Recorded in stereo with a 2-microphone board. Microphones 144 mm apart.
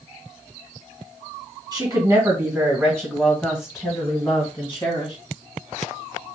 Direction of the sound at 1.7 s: 25° right (ahead or behind).